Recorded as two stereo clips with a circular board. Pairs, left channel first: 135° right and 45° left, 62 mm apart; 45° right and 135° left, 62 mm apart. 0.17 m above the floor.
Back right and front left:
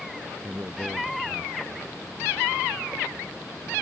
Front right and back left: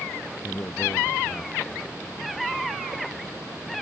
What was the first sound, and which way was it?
A man speaking, 5° right.